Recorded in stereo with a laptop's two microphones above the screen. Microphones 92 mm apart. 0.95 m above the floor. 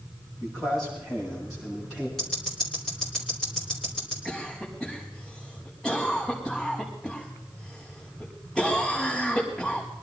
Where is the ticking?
5° left (ahead or behind), 3 m.